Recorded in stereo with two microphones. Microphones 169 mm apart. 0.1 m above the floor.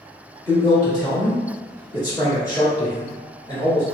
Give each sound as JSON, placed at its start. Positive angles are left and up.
{"t": 0.5, "sound": "a man speaking", "side_deg": 20, "distance_m": 1.3}